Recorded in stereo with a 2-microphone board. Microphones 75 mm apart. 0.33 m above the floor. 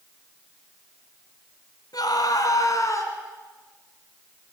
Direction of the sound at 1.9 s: 65° left (ahead or behind).